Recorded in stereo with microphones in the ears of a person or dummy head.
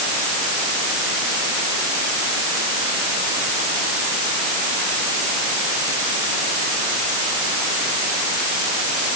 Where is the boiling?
No boiling in this recording.